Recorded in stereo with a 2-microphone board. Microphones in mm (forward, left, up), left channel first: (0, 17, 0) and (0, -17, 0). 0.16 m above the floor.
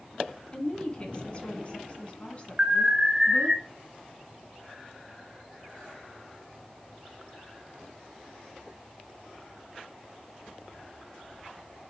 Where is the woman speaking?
30° left (ahead or behind), 2 m; by 3.6 s 35° left (ahead or behind), 2 m.